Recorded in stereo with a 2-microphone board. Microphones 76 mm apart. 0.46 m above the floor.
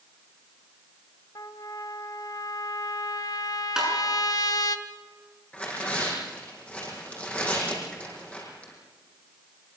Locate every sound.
1.4 s a trumpet: 65° left (ahead or behind), 1.3 m
3.8 s tapping: 5° right (ahead or behind), 7 m
5.5 s tearing paper: 15° left (ahead or behind), 6 m